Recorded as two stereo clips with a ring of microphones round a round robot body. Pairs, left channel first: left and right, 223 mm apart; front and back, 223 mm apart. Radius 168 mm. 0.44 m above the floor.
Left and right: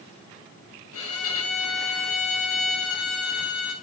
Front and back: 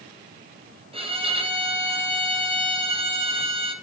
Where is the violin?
115° left, 4.5 m.